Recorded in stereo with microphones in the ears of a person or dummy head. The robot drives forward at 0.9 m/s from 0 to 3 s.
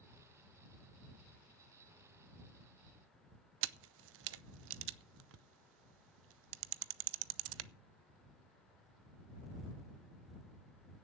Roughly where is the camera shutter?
Right.